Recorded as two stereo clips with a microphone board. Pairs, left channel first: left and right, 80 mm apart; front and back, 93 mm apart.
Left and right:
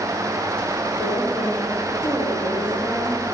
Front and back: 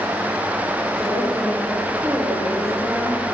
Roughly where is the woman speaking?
Left.